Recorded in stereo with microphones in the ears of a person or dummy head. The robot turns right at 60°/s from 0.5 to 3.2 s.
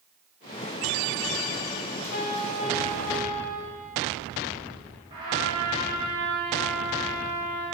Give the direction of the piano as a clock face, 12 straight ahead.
8 o'clock.